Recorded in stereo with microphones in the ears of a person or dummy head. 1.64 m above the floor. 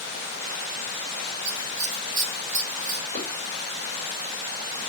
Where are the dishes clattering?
45° right (ahead or behind), 3.5 m.